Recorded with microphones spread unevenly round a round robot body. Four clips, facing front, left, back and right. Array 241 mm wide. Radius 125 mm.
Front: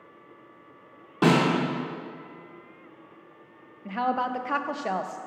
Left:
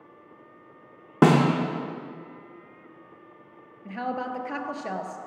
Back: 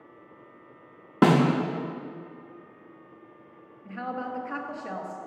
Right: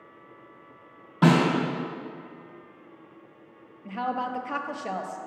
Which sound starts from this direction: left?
A snare drum, at 1.2 s.